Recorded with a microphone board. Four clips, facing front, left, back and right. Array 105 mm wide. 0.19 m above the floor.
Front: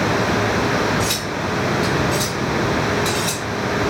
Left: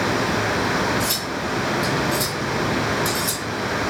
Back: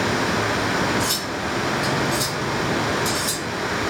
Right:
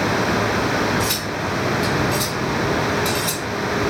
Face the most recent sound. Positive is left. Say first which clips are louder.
# right 2 dB, front 3 dB
turn(degrees=-35)